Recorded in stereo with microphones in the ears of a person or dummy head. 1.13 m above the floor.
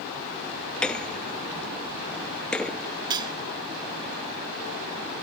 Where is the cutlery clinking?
20° right (ahead or behind).